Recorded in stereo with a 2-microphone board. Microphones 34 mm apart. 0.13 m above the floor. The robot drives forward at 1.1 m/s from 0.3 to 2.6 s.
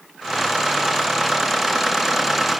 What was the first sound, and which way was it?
Only background noise.